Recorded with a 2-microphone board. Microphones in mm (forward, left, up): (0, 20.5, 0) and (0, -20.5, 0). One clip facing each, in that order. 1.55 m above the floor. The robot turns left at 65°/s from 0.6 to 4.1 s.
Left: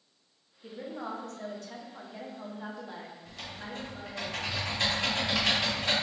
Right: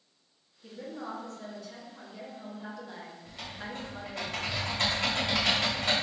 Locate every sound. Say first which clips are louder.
0.6 s a woman speaking: left 1 dB; 160° left, 0.8 m; by 4.2 s 70° right, 0.8 m
3.2 s typing on a keyboard: right 2 dB; 15° right, 2.0 m; by 5.9 s 70° right, 2.0 m